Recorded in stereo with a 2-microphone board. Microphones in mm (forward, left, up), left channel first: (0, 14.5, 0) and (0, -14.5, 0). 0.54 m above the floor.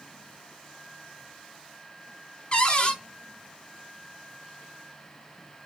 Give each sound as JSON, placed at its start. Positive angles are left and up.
{"t": 2.5, "sound": "a cupboard door", "side_deg": 35, "distance_m": 1.0}